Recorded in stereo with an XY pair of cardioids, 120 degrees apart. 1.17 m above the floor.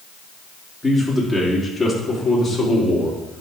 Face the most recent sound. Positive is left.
turn(degrees=35)